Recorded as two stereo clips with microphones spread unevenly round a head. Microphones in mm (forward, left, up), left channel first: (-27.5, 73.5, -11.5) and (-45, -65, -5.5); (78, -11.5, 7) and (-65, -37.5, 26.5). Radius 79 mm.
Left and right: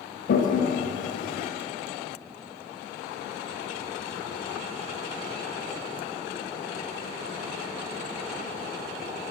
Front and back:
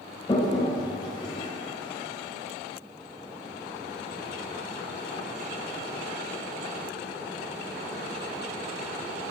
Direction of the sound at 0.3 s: 80° left.